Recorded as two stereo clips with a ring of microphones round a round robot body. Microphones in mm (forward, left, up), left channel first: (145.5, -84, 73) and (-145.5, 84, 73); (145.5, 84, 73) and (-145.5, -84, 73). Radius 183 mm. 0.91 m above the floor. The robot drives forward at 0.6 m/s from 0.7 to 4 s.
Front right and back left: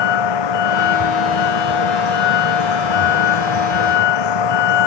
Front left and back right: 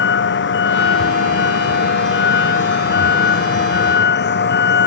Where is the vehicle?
30° right.